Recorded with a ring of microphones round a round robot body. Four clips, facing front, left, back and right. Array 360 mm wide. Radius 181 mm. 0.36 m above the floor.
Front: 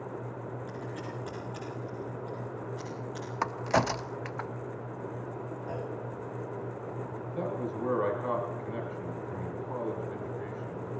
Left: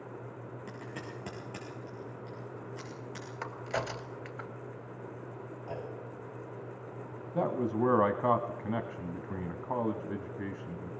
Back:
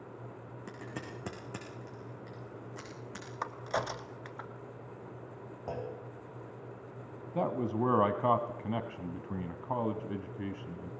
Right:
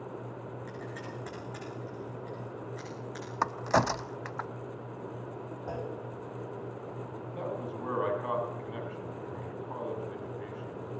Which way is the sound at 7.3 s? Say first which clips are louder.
Left 8 dB, back 3 dB; 135° left.